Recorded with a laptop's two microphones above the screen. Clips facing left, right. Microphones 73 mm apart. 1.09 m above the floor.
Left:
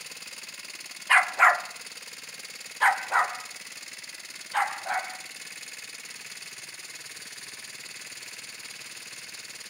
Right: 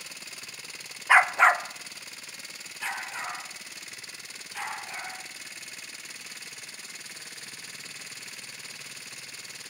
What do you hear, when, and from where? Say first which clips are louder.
1.1 s a dog barking: right 1 dB; 15° right (ahead or behind), 0.8 m; by 5.1 s 65° left (ahead or behind), 3 m